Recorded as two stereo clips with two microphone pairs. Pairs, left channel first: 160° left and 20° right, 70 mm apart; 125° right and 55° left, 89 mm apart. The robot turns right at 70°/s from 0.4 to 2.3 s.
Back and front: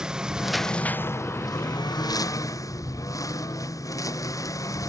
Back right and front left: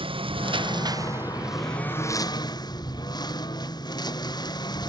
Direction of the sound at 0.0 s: 60° left.